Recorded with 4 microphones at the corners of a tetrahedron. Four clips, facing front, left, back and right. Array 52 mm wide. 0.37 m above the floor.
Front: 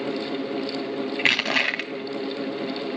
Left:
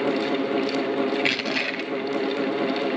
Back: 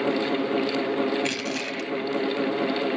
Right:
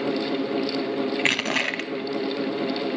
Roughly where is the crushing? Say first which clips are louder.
Right 1 dB, front 6 dB; ahead right.